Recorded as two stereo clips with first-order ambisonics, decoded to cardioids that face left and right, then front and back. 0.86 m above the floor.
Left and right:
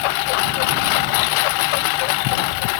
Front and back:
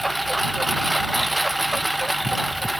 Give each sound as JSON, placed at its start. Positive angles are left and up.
{"t": 0.0, "sound": "a lawn mower", "azimuth_deg": 95}